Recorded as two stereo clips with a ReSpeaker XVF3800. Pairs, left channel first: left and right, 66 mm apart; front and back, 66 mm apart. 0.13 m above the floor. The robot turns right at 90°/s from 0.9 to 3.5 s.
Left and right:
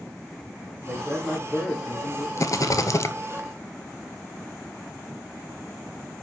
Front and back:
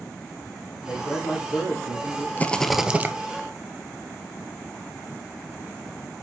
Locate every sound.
0.8 s a man speaking: 45° right, 4.5 m; by 2.3 s 80° left, 4.5 m
2.4 s a rattle: 60° left, 0.8 m; by 3.1 s 130° left, 0.8 m